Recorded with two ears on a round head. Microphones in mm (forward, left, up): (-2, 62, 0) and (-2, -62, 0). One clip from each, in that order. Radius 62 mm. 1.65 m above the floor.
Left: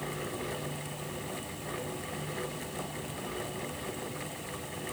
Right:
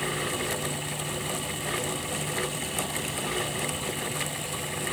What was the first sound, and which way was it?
Only background noise.